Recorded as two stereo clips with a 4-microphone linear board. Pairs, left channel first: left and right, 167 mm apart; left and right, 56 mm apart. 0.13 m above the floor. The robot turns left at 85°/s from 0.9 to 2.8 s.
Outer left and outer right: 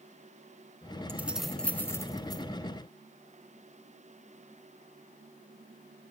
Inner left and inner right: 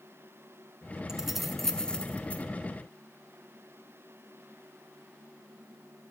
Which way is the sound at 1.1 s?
15° right (ahead or behind).